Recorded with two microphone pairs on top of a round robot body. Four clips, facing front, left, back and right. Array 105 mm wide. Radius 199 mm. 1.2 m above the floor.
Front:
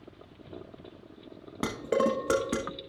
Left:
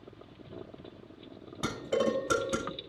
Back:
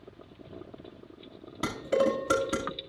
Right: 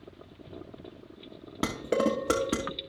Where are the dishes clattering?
60° right, 0.6 m.